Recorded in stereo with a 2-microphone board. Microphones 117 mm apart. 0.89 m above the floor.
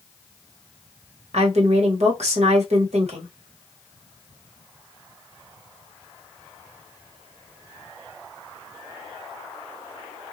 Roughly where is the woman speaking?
Right.